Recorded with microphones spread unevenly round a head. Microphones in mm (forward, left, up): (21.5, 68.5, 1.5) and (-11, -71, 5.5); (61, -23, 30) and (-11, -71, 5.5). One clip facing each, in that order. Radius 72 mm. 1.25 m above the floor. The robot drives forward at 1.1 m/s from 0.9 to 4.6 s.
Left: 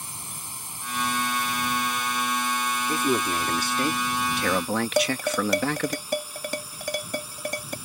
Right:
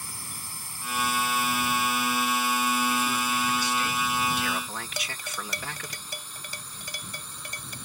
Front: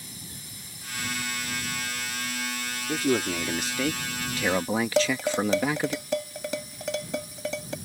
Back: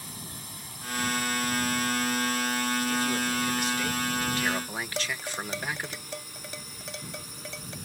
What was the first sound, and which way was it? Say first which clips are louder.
A drone: left 2 dB, back 2 dB; 150° left.